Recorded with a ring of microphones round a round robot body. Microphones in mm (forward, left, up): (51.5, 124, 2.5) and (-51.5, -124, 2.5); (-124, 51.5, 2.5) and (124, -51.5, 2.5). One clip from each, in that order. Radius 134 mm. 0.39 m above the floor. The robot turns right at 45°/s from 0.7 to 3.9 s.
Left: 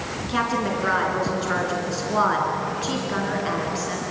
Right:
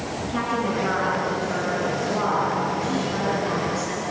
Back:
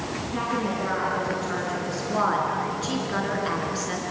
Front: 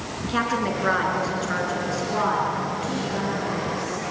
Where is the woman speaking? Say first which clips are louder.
Left 2 dB, front 5 dB; 10° left, 4.5 m; by 4.0 s 150° left, 4.5 m.